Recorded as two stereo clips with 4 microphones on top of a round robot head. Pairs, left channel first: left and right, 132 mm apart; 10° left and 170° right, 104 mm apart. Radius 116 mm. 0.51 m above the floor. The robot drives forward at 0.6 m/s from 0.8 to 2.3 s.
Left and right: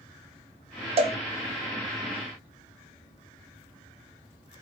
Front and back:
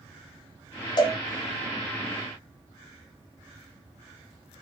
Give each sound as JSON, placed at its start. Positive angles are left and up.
{"t": 1.0, "sound": "a cowbell", "azimuth_deg": -40, "distance_m": 0.7}